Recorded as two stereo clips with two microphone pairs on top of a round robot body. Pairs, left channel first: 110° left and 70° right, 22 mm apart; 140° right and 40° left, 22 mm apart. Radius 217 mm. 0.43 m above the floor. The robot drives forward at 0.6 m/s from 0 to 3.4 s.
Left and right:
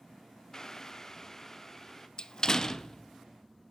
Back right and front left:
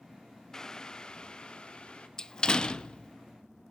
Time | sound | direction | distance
0.5 | boiling | 160° left | 0.7 m
2.2 | a door slam | 155° left | 0.5 m